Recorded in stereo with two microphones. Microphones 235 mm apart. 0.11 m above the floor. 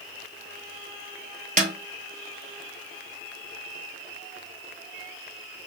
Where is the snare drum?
35° right (ahead or behind), 0.7 m.